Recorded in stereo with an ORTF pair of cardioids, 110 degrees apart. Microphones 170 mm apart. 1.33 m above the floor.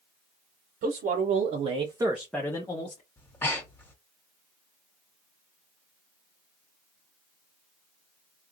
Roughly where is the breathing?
Ahead.